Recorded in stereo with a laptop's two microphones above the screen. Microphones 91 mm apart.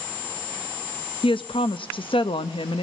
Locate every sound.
1.2 s a woman speaking: 65° left (ahead or behind), 0.6 m